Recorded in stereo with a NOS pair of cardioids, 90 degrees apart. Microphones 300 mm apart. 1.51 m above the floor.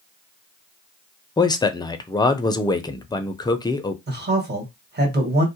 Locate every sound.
1.4 s a man speaking: 15° left, 0.5 m
4.1 s a man speaking: 35° right, 1.4 m